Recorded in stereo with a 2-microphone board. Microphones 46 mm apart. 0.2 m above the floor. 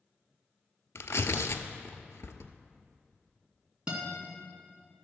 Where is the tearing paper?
80° left, 0.8 m.